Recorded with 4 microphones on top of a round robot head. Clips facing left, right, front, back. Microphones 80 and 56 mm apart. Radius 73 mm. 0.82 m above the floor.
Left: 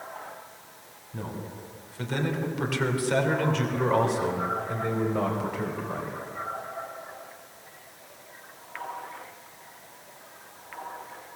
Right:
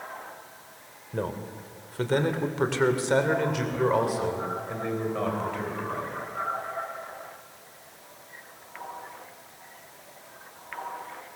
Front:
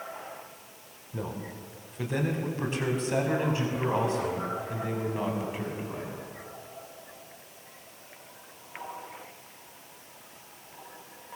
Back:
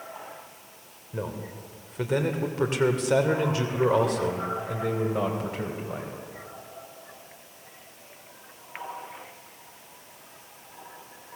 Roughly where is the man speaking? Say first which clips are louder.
Right 5 dB, back 2 dB; behind right.